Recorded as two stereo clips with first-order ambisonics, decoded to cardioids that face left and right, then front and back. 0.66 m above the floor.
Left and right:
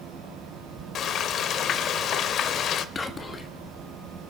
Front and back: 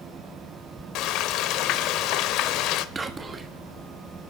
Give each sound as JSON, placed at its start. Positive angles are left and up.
{"t": 0.9, "sound": "frying", "azimuth_deg": 35, "distance_m": 0.8}
{"t": 3.0, "sound": "whispering", "azimuth_deg": 130, "distance_m": 1.2}